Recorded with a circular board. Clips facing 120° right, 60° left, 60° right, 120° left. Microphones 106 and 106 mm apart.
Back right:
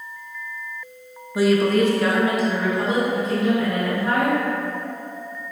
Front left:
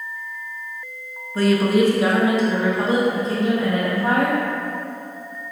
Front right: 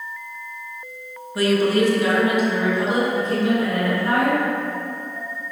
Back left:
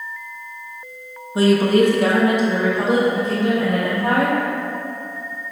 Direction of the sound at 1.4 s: 170° left.